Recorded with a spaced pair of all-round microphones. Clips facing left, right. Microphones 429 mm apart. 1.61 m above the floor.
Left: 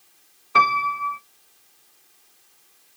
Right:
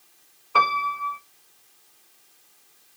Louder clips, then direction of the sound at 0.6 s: Left 2 dB; 40° left (ahead or behind).